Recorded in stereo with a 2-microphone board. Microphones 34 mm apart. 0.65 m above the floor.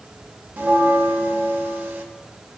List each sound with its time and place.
0.6 s a bell: 85° right, 1.0 m